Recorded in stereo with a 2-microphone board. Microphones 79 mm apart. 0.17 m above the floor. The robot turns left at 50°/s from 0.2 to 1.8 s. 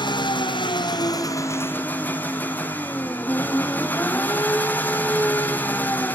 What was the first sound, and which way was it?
An engine running, 100° left.